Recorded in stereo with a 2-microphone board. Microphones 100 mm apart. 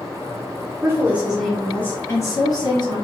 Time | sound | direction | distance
0.8 | a woman speaking | 25° right (ahead or behind) | 1.2 m